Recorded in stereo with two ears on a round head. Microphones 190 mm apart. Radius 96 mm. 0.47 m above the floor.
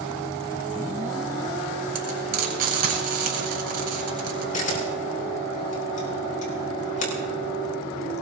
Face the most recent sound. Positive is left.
turn(degrees=40)  # may be behind; listen again after turning